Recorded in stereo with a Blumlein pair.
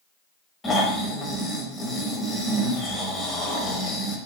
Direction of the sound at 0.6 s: 15° left.